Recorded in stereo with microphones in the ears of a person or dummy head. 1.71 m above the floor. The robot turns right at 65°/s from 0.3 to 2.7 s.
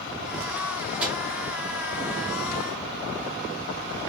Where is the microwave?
10° right (ahead or behind), 0.8 m; by 1.2 s centre (ahead or behind), 0.8 m.